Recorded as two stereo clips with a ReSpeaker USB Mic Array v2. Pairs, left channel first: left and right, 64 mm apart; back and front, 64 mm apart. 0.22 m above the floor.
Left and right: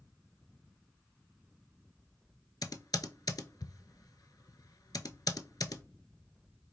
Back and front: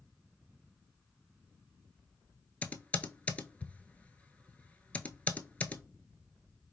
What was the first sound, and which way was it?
Typing on a keyboard, 110° left.